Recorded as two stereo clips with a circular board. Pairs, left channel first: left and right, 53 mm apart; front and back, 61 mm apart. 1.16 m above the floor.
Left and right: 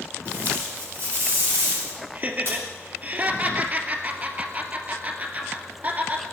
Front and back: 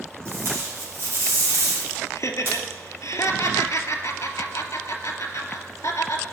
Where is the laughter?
35° right, 2 m.